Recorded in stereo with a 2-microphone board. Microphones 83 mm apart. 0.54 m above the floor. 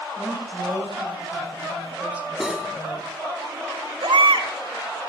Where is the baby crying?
70° right (ahead or behind), 1.4 m.